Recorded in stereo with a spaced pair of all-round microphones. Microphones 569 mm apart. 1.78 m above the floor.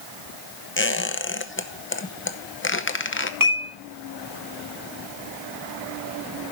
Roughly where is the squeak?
Left.